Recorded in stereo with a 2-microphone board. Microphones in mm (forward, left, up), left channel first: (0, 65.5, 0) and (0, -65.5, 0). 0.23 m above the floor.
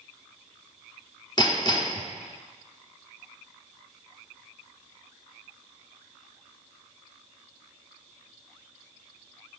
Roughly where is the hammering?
Left.